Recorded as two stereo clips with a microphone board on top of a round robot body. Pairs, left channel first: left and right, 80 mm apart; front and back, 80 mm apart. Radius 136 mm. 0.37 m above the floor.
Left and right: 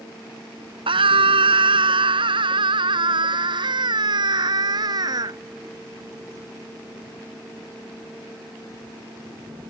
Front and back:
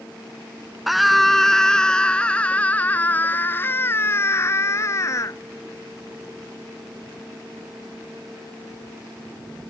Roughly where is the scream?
Right.